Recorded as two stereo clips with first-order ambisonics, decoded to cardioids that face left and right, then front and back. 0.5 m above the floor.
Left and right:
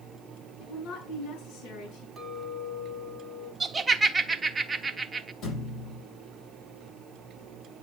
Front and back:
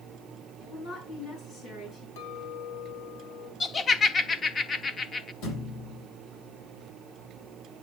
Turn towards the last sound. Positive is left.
turn(degrees=35)